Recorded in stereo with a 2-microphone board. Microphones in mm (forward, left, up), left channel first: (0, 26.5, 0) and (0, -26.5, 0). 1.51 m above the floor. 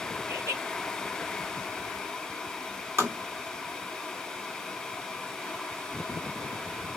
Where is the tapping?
65° right (ahead or behind), 2 m.